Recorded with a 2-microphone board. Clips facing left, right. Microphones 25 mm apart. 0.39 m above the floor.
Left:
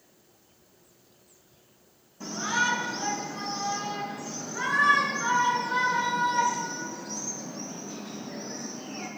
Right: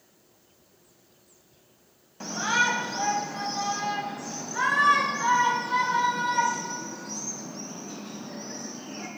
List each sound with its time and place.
2.2 s a shout: 60° right (ahead or behind), 3 m; by 9.1 s 30° right (ahead or behind), 6 m